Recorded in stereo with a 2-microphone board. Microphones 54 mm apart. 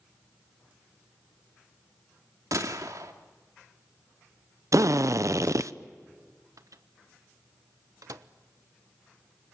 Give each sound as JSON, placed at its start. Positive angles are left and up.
{"t": 2.5, "sound": "a gunshot", "side_deg": -75, "distance_m": 2.5}
{"t": 4.7, "sound": "a drill", "side_deg": -70, "distance_m": 0.7}
{"t": 6.6, "sound": "a microwave", "side_deg": -80, "distance_m": 1.0}